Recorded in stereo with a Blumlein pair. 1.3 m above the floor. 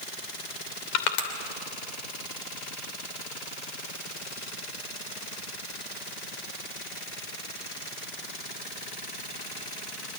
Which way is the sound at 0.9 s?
45° left.